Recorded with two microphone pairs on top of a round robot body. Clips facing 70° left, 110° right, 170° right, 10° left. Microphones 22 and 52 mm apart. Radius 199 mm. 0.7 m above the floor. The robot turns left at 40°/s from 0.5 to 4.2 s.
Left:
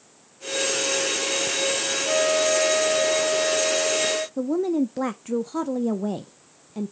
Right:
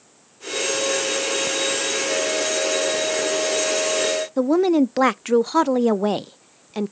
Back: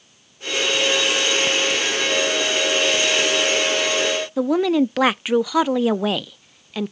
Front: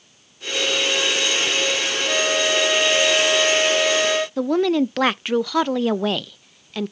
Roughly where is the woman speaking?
Right.